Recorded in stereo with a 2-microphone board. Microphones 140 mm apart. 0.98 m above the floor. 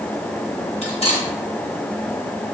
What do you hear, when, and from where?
0.8 s cutlery clinking: 45° left (ahead or behind), 2.5 m